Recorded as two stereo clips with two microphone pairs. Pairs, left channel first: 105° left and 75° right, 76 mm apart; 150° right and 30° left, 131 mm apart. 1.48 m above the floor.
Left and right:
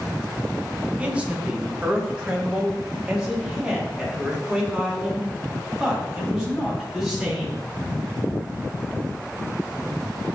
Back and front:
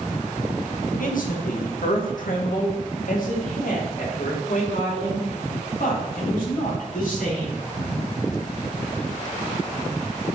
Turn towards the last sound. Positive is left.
turn(degrees=-165)